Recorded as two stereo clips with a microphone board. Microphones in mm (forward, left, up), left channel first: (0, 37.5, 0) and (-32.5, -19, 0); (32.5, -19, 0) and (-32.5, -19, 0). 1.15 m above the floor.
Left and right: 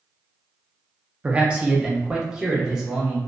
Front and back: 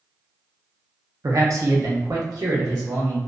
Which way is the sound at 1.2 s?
175° left.